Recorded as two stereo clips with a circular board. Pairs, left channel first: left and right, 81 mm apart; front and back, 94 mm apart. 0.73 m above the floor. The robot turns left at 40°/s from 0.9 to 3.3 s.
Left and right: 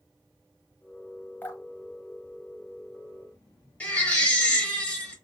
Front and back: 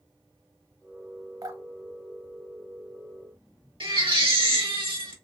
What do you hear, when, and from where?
1.4 s dripping: 145° left, 0.7 m; by 3.1 s 80° left, 0.7 m
3.8 s a baby crying: 160° left, 1.2 m